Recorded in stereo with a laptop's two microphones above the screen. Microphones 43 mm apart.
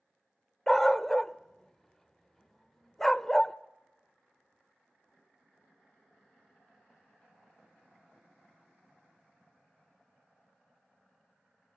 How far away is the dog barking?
About 0.8 m.